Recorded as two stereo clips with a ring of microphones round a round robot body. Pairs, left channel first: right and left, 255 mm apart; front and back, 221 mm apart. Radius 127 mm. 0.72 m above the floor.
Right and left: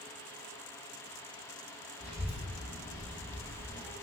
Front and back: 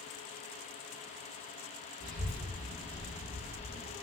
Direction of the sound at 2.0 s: 170° left.